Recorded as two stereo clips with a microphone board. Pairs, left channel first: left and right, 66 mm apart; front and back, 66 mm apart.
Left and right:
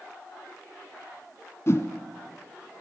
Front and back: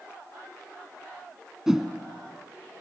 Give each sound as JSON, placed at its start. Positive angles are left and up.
{"t": 1.7, "sound": "a whoosh", "azimuth_deg": 100, "distance_m": 1.0}